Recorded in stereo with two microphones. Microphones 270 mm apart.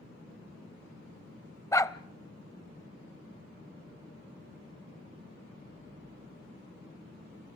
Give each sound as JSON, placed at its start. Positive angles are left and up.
{"t": 1.7, "sound": "a dog barking", "side_deg": 10, "distance_m": 0.6}